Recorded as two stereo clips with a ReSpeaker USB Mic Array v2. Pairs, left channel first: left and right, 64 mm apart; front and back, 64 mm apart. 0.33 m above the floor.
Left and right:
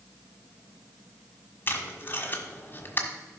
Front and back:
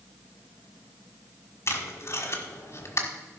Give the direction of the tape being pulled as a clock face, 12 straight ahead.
11 o'clock.